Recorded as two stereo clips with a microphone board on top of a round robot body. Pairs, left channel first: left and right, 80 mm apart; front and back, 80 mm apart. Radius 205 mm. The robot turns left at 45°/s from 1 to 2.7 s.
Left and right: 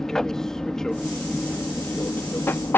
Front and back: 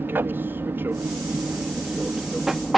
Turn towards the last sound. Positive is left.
turn(degrees=90)